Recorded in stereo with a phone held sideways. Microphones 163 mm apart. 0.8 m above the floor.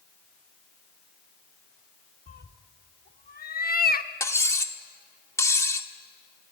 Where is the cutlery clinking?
15° left (ahead or behind), 1.1 m.